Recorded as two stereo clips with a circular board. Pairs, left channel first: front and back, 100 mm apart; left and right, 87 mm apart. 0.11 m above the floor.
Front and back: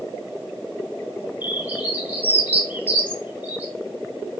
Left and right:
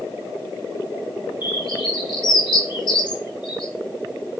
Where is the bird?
110° left, 0.8 m.